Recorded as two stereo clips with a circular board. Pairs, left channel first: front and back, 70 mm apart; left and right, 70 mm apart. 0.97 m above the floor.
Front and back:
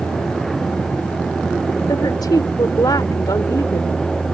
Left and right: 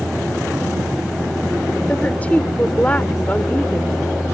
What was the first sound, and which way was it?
A woman speaking, 20° left.